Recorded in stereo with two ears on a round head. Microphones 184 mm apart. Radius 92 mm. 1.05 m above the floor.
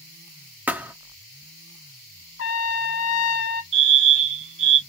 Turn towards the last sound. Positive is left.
turn(degrees=-65)  # may be behind; listen again after turning